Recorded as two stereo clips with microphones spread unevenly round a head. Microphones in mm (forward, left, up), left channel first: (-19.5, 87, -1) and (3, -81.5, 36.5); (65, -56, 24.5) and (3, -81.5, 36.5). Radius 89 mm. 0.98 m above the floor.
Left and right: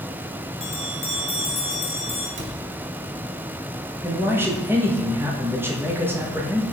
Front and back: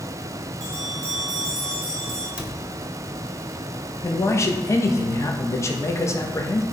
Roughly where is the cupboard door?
Right.